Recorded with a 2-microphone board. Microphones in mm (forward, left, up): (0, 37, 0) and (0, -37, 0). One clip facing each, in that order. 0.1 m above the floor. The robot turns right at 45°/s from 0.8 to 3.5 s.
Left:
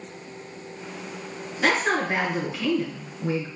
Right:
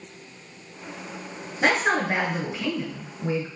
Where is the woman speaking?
25° right (ahead or behind), 1.1 m; by 3.5 s 10° right (ahead or behind), 1.1 m.